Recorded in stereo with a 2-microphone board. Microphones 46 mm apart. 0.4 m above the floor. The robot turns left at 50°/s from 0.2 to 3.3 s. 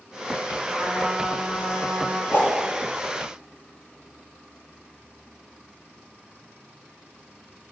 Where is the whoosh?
55° left (ahead or behind), 4.5 m; by 2.5 s 65° left (ahead or behind), 4.5 m.